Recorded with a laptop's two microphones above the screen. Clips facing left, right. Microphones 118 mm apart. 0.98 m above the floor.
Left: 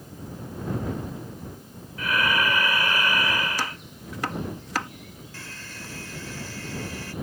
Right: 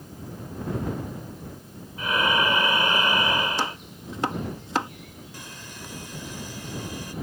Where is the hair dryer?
15° right (ahead or behind).